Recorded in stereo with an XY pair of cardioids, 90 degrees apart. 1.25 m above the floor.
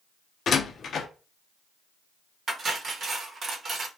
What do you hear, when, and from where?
0.5 s a door slam: 60° left, 0.5 m
2.5 s cutlery clinking: 50° right, 0.9 m